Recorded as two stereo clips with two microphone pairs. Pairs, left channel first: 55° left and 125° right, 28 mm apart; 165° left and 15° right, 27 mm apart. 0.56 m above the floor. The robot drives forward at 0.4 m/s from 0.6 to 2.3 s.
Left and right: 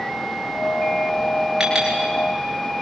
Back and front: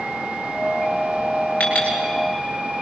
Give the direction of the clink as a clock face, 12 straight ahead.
6 o'clock.